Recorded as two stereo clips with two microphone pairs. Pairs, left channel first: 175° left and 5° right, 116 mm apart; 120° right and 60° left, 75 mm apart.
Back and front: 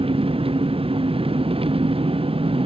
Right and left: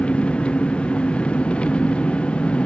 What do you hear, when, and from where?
0.0 s an engine running: 45° right